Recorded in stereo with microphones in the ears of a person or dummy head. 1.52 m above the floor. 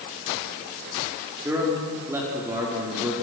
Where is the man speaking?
10° right (ahead or behind), 4.5 m.